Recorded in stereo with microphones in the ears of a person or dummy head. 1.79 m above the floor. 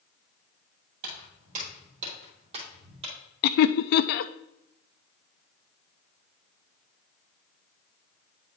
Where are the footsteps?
50° right (ahead or behind), 3 m; by 3.1 s 35° right (ahead or behind), 3 m.